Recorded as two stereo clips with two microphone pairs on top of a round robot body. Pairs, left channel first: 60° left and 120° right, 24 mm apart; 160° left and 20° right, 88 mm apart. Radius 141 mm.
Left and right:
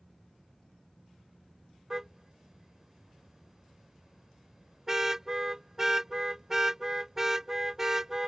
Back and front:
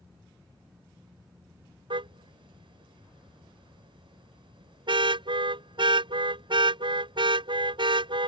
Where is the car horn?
45° right.